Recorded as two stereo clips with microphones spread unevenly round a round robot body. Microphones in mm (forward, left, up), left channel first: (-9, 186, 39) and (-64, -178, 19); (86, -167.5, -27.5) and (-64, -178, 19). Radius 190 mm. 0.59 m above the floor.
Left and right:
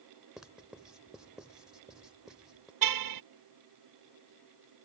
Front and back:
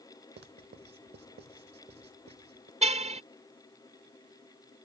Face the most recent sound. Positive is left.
turn(degrees=-135)